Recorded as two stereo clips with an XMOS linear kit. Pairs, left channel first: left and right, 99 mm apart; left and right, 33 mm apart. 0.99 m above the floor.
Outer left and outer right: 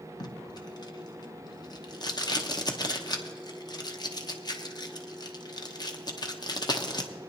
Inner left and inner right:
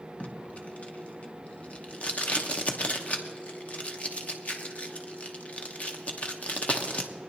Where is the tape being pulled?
45° left (ahead or behind), 0.8 m.